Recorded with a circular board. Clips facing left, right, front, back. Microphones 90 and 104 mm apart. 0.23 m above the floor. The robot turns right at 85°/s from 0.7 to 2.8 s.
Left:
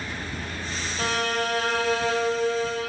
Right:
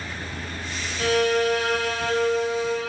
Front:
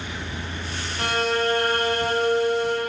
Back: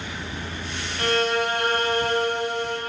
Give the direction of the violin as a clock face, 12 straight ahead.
10 o'clock.